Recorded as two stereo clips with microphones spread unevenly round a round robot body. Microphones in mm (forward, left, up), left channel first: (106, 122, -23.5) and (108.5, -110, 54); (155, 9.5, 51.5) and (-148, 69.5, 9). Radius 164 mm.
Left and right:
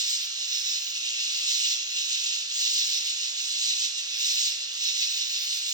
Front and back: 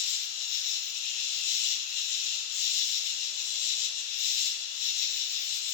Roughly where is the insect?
Ahead.